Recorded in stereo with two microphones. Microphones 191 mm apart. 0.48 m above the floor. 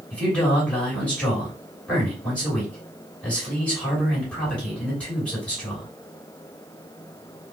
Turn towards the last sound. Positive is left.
turn(degrees=5)  # may be behind; listen again after turning